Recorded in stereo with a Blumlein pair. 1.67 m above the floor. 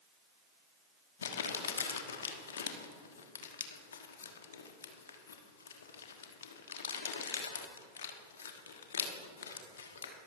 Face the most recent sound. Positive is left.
turn(degrees=65)